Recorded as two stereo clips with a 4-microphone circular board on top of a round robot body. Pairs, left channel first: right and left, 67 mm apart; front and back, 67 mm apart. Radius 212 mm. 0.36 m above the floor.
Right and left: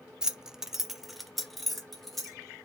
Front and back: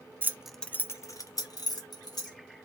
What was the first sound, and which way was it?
Keys jangling, 160° left.